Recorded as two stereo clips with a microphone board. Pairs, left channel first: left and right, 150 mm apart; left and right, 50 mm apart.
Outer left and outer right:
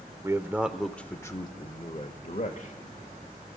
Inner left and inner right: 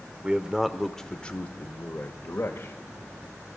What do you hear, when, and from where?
0.2 s a man speaking: 20° right (ahead or behind), 0.9 m; by 2.8 s 55° left (ahead or behind), 1.3 m